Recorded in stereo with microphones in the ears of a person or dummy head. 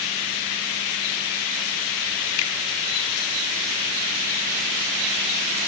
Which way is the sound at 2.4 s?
75° left (ahead or behind).